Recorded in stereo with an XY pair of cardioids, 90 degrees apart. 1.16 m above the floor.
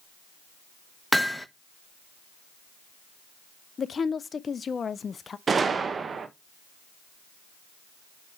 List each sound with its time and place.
1.1 s hammering: straight ahead, 0.7 m
3.8 s a woman speaking: 45° left, 0.5 m
5.5 s a gunshot: 45° right, 1.0 m